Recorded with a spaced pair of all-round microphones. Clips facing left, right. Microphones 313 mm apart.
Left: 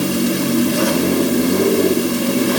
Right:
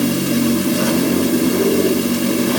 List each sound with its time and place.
Only background noise.